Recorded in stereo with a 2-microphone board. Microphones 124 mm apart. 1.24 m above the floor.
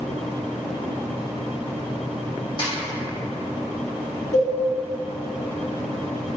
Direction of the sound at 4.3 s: 75° left (ahead or behind).